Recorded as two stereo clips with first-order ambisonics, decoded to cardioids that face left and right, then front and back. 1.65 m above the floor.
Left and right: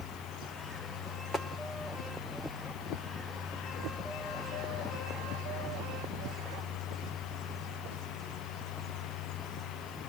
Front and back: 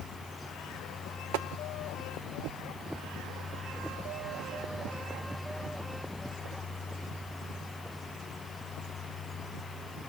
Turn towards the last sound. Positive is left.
turn(degrees=175)